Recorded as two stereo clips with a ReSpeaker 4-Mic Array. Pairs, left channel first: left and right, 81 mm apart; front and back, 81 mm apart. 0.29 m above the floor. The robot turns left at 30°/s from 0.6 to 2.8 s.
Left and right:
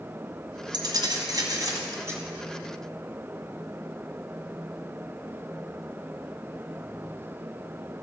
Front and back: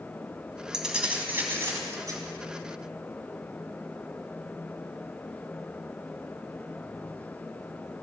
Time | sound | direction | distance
0.7 | keys jangling | 100° right | 1.6 m